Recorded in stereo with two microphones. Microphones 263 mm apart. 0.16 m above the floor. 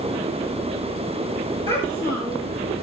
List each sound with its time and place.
1.7 s a child speaking: 20° right (ahead or behind), 6.5 m